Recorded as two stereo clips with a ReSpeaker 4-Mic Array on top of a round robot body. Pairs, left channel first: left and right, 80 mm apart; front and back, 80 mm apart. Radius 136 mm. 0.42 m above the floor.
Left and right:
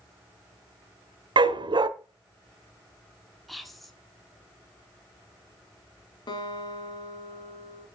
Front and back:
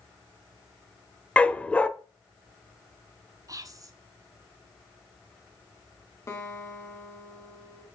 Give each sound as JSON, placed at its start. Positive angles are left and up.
{"t": 1.4, "sound": "a dog barking", "azimuth_deg": -75, "distance_m": 0.5}
{"t": 3.5, "sound": "whispering", "azimuth_deg": 180, "distance_m": 1.3}
{"t": 6.3, "sound": "a guitar", "azimuth_deg": 55, "distance_m": 1.7}